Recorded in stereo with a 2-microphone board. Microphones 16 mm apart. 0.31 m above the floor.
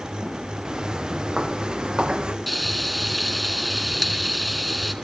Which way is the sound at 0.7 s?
50° right (ahead or behind).